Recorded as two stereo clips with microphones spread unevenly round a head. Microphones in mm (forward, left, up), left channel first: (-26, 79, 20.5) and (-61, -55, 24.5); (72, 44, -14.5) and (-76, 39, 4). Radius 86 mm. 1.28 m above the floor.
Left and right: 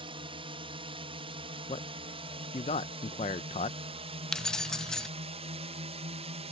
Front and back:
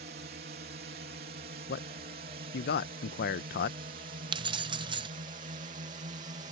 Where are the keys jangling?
160° left.